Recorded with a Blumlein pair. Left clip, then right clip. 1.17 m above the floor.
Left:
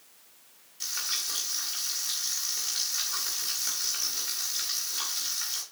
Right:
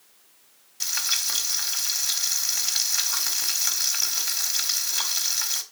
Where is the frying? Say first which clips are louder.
Right 6 dB; 70° right, 1.9 m.